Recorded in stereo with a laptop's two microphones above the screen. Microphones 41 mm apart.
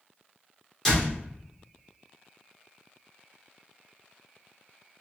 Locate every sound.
0.8 s a door slam: 5° left (ahead or behind), 2 m